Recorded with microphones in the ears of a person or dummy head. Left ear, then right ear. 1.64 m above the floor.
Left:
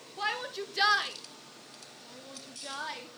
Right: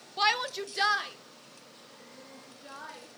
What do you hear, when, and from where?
0.2 s a shout: 50° right (ahead or behind), 1.3 m; by 3.1 s 45° left (ahead or behind), 4.5 m